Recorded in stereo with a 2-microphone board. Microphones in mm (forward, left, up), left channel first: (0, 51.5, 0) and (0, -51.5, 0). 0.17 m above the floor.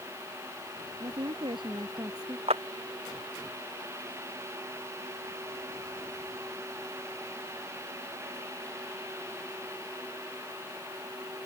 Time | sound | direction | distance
1.0 | a woman speaking | 60° right (ahead or behind) | ?
2.5 | a clap | 75° right (ahead or behind) | ?